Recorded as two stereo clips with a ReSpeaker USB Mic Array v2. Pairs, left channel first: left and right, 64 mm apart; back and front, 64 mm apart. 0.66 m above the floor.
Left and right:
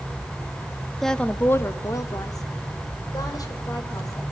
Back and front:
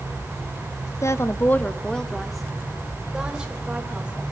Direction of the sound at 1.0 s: 175° left.